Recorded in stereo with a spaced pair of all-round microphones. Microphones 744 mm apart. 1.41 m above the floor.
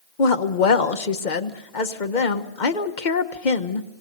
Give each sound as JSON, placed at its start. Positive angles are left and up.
{"t": 0.2, "sound": "a woman speaking", "side_deg": 80, "distance_m": 1.3}